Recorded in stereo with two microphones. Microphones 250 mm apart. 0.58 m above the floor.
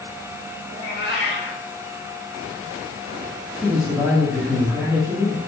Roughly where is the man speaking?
Centre.